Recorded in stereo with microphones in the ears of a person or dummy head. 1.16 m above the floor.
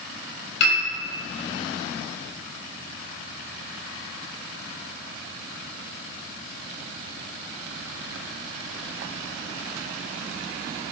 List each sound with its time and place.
0.6 s a piano: 65° left (ahead or behind), 3 m